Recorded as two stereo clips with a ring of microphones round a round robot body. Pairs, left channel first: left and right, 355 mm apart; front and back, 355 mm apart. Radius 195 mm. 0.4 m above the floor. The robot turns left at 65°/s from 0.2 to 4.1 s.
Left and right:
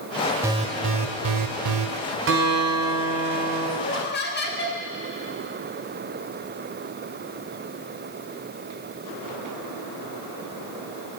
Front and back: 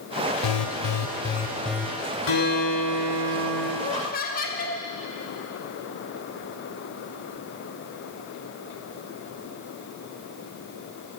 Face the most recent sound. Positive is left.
turn(degrees=50)